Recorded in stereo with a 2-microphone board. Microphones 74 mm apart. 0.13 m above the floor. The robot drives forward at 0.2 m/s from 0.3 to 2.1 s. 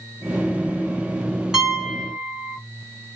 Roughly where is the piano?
Centre.